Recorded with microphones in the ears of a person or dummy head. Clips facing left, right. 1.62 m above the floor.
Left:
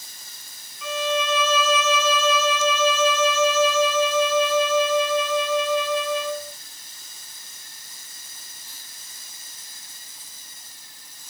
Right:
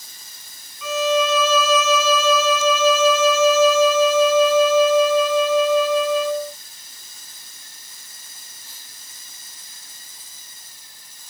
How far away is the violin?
About 1.5 m.